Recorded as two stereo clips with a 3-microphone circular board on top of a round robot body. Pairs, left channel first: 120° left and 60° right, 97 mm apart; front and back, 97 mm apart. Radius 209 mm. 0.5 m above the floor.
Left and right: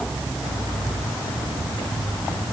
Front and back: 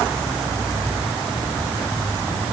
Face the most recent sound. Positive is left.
No sound to turn to.